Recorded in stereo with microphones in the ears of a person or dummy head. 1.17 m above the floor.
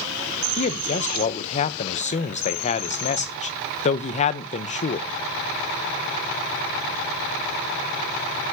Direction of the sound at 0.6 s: 35° left (ahead or behind).